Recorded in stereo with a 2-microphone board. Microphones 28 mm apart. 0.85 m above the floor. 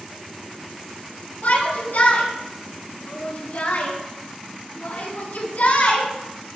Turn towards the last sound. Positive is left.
turn(degrees=80)